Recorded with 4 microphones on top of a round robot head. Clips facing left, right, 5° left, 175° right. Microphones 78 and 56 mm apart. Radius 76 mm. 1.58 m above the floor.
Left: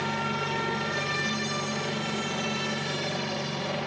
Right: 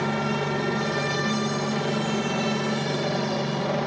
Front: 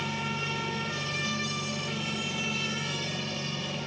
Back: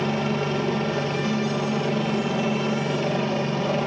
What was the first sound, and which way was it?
A helicopter, 155° right.